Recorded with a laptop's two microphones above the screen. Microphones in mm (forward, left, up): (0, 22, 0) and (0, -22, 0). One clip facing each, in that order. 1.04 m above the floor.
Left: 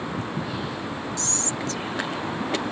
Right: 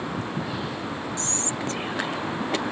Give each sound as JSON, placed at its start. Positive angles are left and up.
{"t": 1.2, "sound": "whispering", "side_deg": -30}